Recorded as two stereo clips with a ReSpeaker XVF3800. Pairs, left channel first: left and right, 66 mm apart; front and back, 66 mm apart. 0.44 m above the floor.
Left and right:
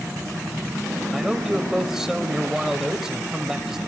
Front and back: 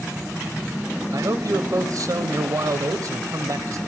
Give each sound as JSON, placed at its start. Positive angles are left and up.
{"t": 1.1, "sound": "a man speaking", "azimuth_deg": -170, "distance_m": 1.7}